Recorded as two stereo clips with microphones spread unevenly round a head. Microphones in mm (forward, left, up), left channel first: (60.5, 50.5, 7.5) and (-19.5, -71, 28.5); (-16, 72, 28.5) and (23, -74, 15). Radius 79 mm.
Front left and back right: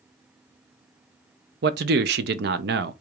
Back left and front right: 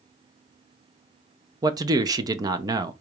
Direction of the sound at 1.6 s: 140° right.